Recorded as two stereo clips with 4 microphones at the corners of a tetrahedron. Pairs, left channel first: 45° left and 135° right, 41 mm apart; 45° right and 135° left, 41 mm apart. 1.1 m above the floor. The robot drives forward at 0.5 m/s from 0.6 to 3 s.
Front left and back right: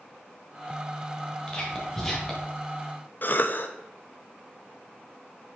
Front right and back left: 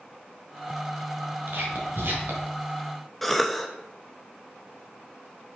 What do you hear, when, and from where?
1.5 s whispering: 115° left, 1.5 m; by 2.5 s 130° left, 1.8 m
3.2 s a cough: 40° left, 0.5 m